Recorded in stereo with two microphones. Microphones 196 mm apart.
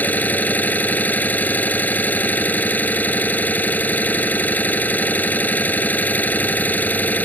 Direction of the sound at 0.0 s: 10° left (ahead or behind).